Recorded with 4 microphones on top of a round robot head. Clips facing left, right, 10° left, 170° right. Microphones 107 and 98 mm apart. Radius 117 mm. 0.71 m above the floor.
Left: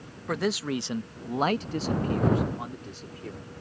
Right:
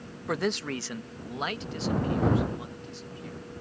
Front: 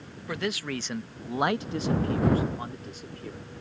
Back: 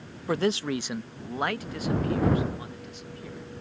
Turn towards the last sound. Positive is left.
turn(degrees=50)